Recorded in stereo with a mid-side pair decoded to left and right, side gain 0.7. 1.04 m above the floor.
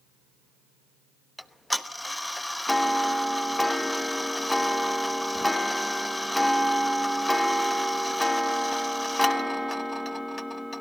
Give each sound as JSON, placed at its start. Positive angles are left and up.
{"t": 1.4, "sound": "ticking", "azimuth_deg": 5, "distance_m": 1.0}